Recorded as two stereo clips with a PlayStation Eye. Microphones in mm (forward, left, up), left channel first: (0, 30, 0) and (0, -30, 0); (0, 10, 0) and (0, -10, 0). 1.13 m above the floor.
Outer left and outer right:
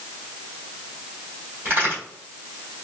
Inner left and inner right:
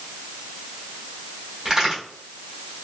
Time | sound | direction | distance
1.6 | a crack | 35° right (ahead or behind) | 1.8 m